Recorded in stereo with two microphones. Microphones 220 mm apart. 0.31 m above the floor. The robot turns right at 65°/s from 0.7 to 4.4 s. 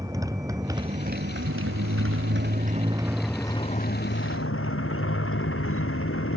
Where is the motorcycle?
165° right; by 6.4 s 75° left.